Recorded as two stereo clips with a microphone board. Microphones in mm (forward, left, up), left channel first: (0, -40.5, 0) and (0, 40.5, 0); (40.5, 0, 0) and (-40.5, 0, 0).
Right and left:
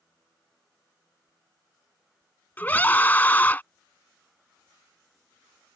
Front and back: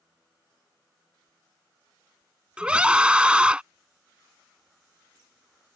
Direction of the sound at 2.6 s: 120° right.